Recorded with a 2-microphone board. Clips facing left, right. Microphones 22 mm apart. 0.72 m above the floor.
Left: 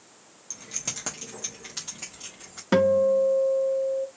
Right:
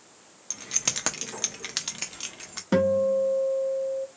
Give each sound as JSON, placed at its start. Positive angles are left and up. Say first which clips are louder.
{"t": 0.5, "sound": "keys jangling", "louder": "right 5 dB", "side_deg": -35, "distance_m": 0.9}
{"t": 2.7, "sound": "a guitar", "louder": "left 2 dB", "side_deg": 25, "distance_m": 0.7}